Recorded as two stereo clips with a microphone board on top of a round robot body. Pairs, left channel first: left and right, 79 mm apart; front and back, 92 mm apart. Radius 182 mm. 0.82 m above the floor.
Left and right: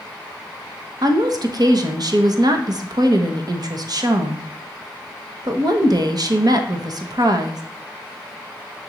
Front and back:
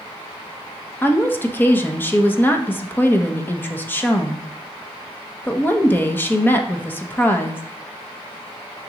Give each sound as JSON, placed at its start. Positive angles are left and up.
{"t": 1.0, "sound": "a woman speaking", "azimuth_deg": -65, "distance_m": 1.3}